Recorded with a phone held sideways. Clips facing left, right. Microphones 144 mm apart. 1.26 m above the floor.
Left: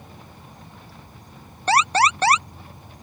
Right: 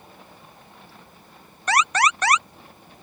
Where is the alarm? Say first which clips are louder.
Left 3 dB; 30° left (ahead or behind).